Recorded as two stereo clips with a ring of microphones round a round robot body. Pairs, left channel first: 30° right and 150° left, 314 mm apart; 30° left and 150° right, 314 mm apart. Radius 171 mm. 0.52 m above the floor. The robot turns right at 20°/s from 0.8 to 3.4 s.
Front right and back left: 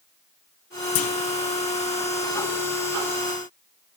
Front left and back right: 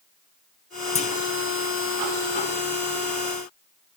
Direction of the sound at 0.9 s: 30° right.